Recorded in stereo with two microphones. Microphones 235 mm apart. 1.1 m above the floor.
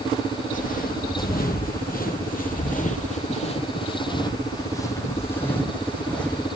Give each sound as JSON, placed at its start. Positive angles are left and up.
{"t": 0.5, "sound": "footsteps", "side_deg": 35, "distance_m": 1.9}